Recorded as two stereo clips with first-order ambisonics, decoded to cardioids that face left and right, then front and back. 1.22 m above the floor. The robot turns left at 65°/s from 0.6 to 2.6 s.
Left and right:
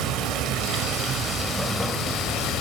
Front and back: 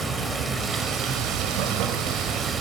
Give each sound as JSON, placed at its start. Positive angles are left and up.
{"t": 0.0, "sound": "running water", "azimuth_deg": -110, "distance_m": 1.7}